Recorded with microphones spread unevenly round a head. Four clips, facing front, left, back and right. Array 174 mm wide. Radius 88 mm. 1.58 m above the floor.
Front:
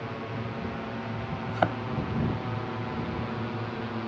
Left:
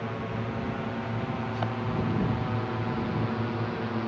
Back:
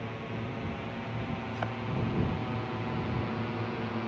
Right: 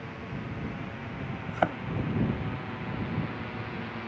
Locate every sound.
0.0 s a drone: 65° left; by 4.1 s 85° left
1.5 s a thud: 40° right